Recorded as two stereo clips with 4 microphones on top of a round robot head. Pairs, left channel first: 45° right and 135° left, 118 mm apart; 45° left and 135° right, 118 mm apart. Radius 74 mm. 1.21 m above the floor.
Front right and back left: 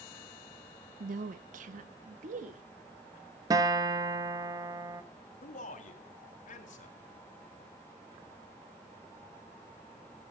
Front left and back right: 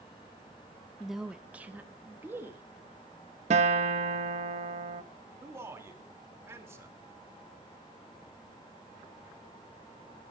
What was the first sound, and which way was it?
A woman speaking, 135° left.